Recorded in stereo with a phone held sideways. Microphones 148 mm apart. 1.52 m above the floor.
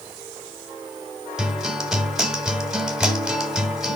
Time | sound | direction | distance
1.4 | a guitar | 5° right (ahead or behind) | 1.7 m